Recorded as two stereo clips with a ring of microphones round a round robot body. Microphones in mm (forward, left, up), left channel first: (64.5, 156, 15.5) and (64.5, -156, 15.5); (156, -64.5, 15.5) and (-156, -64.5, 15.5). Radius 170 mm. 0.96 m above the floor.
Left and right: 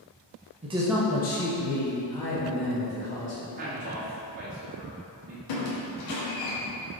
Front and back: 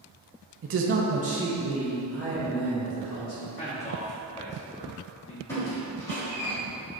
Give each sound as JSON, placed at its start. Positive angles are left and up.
{"t": 0.6, "sound": "a man speaking", "azimuth_deg": -150, "distance_m": 0.6}
{"t": 3.6, "sound": "a man speaking", "azimuth_deg": -55, "distance_m": 0.7}
{"t": 5.5, "sound": "a squeak", "azimuth_deg": 85, "distance_m": 0.9}